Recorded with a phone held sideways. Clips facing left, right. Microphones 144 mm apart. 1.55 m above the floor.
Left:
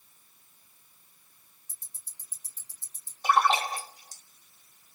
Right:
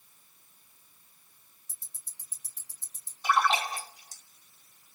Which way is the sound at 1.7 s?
90° right.